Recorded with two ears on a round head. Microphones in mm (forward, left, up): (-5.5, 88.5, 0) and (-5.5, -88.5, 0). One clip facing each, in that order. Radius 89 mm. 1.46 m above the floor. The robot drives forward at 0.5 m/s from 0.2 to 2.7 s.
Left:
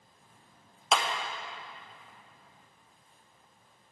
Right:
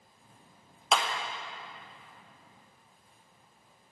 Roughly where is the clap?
Centre.